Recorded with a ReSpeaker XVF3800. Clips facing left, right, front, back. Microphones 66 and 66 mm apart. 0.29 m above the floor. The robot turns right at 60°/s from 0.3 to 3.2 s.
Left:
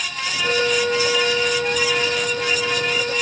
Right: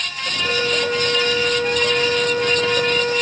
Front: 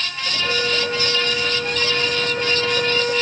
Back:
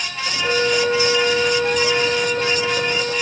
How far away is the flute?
About 0.8 m.